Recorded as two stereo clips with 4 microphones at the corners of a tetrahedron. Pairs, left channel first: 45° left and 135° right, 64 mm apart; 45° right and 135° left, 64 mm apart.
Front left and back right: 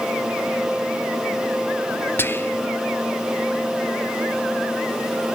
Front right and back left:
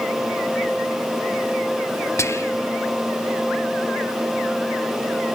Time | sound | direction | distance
2.2 | whispering | 10° right | 0.5 m